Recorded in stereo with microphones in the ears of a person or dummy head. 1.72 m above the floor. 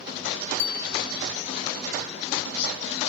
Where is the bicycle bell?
70° left (ahead or behind), 2 m.